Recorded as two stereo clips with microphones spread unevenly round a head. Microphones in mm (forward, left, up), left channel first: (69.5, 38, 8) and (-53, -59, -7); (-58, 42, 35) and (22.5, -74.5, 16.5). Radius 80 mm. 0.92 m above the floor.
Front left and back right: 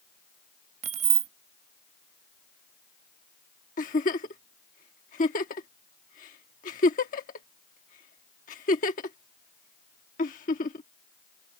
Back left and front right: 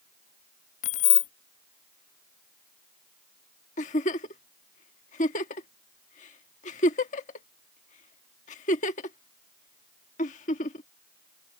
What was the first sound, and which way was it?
Keys jangling, 165° left.